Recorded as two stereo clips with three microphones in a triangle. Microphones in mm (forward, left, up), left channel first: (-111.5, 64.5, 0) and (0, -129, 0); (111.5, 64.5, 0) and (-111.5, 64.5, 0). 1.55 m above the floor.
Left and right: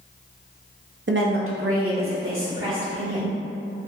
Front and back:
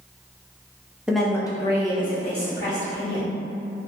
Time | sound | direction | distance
1.1 | a woman speaking | 95° right | 0.6 m